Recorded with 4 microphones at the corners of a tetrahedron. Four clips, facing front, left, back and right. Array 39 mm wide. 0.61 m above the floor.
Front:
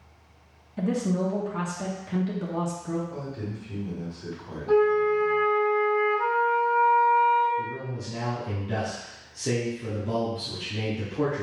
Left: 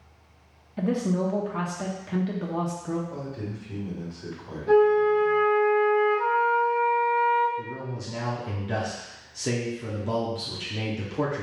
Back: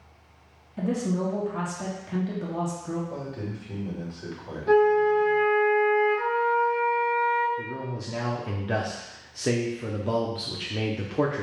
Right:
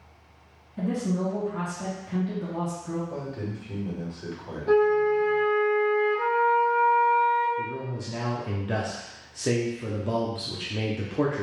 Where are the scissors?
No scissors in this recording.